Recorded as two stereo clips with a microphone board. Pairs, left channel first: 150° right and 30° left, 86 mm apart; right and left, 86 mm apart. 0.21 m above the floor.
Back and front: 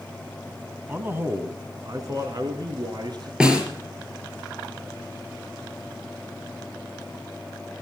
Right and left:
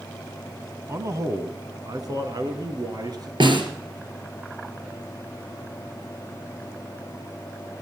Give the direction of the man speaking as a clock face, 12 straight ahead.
9 o'clock.